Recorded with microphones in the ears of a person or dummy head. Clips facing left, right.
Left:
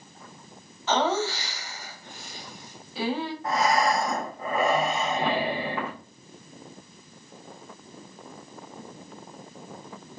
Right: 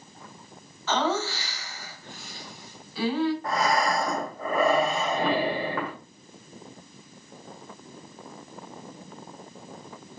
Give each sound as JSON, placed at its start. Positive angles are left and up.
{"t": 0.9, "sound": "laughter", "side_deg": 20, "distance_m": 1.0}
{"t": 3.4, "sound": "breathing", "side_deg": -50, "distance_m": 1.2}